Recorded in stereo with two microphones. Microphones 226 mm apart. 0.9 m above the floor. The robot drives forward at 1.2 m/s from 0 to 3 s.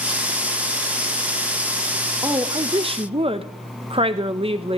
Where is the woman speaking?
15° right (ahead or behind), 1.0 m; by 4.8 s 25° right (ahead or behind), 0.6 m.